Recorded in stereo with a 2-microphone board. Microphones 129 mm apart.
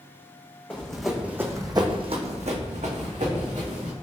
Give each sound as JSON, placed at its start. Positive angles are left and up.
{"t": 0.7, "sound": "running footsteps", "side_deg": 10, "distance_m": 0.7}